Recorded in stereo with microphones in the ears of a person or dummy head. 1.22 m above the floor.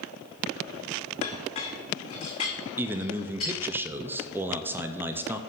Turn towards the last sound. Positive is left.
turn(degrees=-15)  # may be behind; listen again after turning